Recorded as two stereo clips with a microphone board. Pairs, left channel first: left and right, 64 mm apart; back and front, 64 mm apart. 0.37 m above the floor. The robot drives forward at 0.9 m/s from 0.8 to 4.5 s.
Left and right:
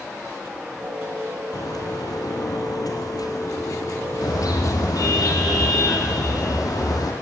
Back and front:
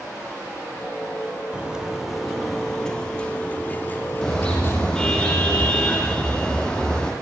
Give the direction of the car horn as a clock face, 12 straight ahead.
9 o'clock.